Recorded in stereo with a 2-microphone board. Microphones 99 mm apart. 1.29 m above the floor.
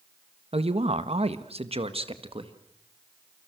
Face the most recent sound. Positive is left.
turn(degrees=-65)  # may be behind; listen again after turning